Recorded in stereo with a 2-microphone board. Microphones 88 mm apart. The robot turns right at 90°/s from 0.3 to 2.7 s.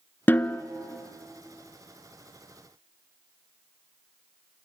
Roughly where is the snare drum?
Left.